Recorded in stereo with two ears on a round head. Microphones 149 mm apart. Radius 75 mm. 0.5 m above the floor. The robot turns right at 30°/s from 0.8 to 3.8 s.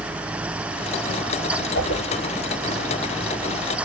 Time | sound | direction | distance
1.8 | a whoosh | 75° left (ahead or behind) | 4.5 m